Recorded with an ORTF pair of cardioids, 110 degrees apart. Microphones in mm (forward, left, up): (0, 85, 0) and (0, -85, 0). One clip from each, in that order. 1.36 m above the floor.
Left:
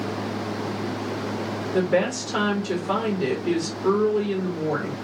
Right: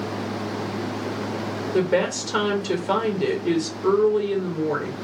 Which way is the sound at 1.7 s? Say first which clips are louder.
Right 1 dB; 15° right.